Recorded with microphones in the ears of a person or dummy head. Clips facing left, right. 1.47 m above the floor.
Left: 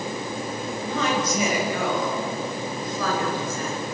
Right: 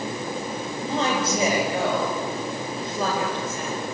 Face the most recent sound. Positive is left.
turn(degrees=-20)  # may be behind; listen again after turning